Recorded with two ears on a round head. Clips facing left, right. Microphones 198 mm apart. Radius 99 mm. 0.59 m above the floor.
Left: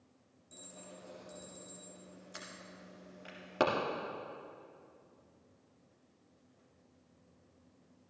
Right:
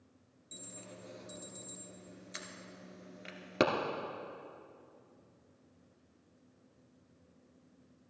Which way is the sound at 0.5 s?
25° right (ahead or behind).